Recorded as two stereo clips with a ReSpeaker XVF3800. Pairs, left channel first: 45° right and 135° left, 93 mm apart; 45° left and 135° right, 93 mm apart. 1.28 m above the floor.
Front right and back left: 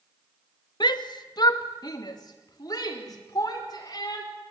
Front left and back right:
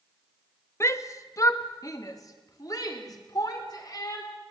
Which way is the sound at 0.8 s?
10° right.